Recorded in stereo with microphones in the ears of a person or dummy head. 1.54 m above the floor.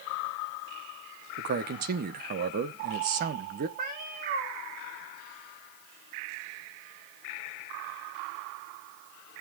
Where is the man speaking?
50° right (ahead or behind), 0.8 m.